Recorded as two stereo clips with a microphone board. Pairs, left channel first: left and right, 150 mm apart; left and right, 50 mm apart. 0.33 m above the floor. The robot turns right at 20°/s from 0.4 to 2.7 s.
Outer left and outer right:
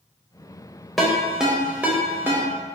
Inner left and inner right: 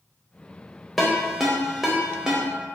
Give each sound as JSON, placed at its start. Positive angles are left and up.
{"t": 1.0, "sound": "a ringtone", "side_deg": 0, "distance_m": 0.5}